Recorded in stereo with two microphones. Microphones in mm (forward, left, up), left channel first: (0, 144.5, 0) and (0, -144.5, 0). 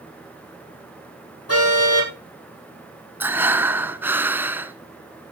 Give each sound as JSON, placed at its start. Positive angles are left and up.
{"t": 1.5, "sound": "a car horn", "side_deg": 55, "distance_m": 5.0}
{"t": 3.2, "sound": "breathing", "side_deg": -5, "distance_m": 1.1}